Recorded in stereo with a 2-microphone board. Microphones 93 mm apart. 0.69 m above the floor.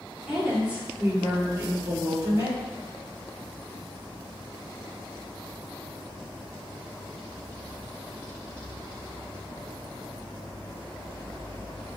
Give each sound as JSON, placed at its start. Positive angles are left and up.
{"t": 0.3, "sound": "a woman speaking", "side_deg": -5, "distance_m": 1.7}